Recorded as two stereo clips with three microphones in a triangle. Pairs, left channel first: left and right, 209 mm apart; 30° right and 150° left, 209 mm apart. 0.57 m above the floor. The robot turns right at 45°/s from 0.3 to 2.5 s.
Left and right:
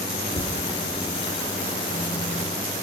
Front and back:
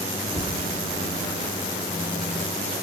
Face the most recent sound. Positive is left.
turn(degrees=150)